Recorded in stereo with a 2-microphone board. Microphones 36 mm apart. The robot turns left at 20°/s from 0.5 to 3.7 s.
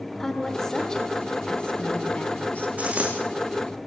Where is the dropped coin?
35° right (ahead or behind), 4.5 m; by 3.2 s 30° right (ahead or behind), 4.5 m.